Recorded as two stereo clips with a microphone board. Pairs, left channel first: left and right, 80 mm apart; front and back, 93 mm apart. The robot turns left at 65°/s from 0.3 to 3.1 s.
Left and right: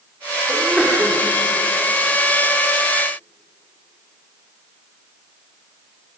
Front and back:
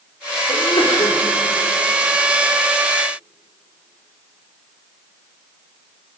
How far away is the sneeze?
About 2.5 m.